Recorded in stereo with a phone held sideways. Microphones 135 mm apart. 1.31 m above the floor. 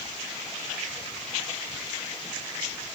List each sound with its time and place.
Only background noise.